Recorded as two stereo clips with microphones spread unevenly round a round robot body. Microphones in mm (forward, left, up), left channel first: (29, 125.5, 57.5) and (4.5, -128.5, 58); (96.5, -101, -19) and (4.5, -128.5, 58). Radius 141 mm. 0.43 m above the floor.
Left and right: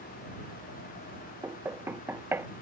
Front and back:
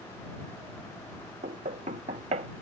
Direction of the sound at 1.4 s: Straight behind.